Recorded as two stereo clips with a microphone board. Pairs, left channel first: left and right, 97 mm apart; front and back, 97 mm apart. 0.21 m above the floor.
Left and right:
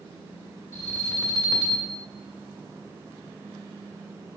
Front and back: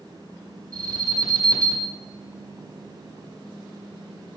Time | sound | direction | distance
0.7 | an alarm | 140° left | 1.7 m